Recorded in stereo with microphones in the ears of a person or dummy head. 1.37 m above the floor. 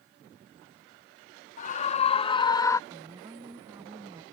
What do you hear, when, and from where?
1.6 s a scream: 45° left (ahead or behind); by 2.8 s 15° left (ahead or behind)
2.9 s a woman speaking: 20° right (ahead or behind)